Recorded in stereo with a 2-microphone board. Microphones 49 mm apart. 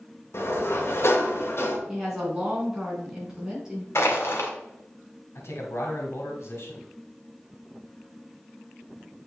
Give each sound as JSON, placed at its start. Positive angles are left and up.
{"t": 0.3, "sound": "a sliding door", "side_deg": 65, "distance_m": 1.7}
{"t": 1.9, "sound": "a woman speaking", "side_deg": -15, "distance_m": 4.5}
{"t": 4.0, "sound": "crushing", "side_deg": 65, "distance_m": 2.0}
{"t": 5.3, "sound": "a man speaking", "side_deg": 70, "distance_m": 2.5}